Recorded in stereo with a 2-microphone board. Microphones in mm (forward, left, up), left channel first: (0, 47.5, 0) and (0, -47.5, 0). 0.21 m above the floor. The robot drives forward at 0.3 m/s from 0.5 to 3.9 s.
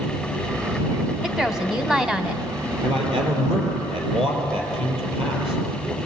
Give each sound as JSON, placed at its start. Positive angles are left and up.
{"t": 1.2, "sound": "a woman speaking", "side_deg": -5, "distance_m": 1.7}
{"t": 2.8, "sound": "a man speaking", "side_deg": -60, "distance_m": 5.0}